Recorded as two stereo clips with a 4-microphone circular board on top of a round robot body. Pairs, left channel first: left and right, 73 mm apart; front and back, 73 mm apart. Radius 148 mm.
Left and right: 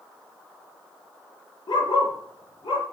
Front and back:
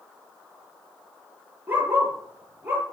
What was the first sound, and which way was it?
A dog barking, 115° left.